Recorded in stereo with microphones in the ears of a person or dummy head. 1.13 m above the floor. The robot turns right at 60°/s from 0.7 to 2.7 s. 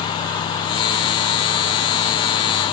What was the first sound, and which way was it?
Only background noise.